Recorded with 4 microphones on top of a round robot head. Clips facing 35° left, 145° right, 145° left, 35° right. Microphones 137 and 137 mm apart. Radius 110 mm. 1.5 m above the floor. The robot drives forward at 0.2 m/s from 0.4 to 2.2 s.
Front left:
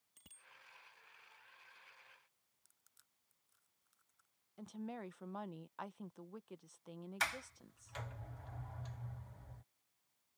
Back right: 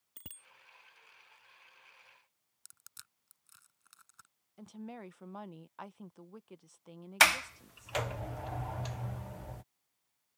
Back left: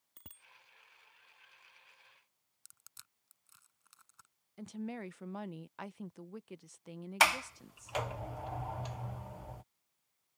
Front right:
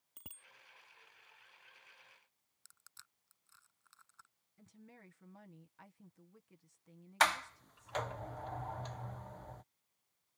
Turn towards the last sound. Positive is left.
turn(degrees=-135)